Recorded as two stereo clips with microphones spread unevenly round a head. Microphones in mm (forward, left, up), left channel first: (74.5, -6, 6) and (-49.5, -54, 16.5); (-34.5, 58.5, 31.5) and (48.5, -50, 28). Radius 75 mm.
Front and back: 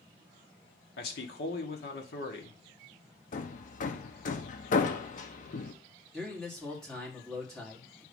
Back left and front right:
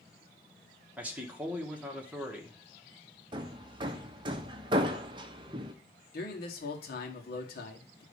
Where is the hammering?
5° left, 0.6 m.